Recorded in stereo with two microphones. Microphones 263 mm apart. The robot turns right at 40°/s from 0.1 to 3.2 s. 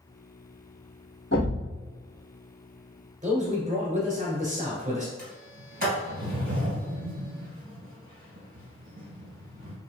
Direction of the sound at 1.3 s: 45° left (ahead or behind).